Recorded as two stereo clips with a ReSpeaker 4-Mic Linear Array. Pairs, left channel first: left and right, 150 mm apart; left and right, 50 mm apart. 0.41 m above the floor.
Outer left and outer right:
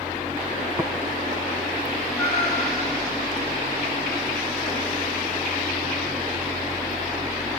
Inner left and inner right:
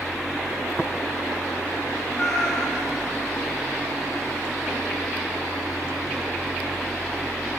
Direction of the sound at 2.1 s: Centre (ahead or behind).